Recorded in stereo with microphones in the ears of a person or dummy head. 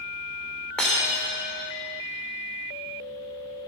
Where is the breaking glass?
Centre (ahead or behind), 3 m.